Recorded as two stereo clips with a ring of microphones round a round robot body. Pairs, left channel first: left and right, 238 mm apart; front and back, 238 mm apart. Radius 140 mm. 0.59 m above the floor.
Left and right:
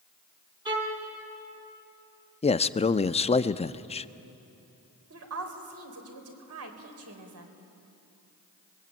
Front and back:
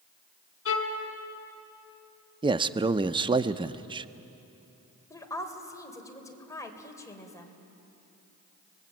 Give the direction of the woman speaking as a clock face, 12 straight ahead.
3 o'clock.